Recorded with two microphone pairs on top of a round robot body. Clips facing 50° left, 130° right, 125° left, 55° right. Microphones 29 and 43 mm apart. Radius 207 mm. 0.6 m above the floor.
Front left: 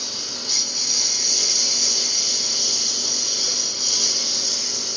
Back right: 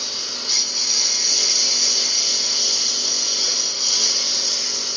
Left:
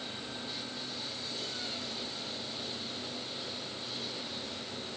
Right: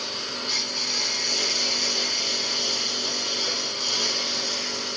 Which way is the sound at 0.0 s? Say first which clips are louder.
Back right 2 dB, right 9 dB; 55° right.